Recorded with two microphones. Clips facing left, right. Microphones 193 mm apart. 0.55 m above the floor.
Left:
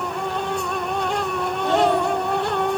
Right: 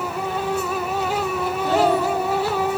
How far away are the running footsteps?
I don't hear running footsteps.